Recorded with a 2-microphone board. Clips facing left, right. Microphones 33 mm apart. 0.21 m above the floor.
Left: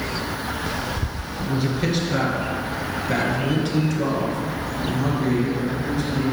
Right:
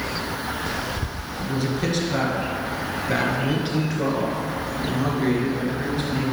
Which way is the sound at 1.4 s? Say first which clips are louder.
Left 1 dB; 15° left (ahead or behind).